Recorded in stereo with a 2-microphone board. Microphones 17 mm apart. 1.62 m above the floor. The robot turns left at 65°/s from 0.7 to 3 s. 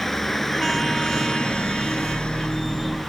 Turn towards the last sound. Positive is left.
turn(degrees=10)